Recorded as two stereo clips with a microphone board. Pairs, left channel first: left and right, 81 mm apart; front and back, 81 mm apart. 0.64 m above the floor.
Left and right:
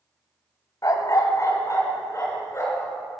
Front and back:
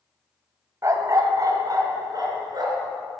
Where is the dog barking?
135° left, 1.3 m; by 2.9 s 145° left, 3.5 m.